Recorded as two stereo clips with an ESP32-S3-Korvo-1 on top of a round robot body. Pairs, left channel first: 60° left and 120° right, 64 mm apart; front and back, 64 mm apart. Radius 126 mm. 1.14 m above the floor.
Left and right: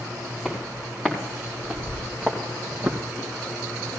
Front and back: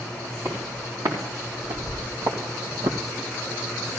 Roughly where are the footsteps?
Behind left.